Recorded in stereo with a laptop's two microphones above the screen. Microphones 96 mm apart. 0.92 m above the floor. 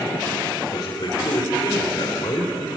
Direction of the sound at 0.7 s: 45° left (ahead or behind).